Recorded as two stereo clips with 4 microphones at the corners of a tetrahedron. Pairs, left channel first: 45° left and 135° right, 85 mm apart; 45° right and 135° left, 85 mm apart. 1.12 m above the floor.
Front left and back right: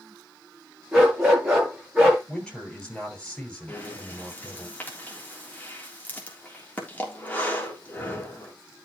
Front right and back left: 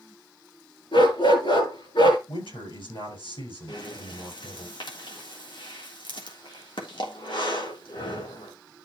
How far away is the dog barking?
About 8 m.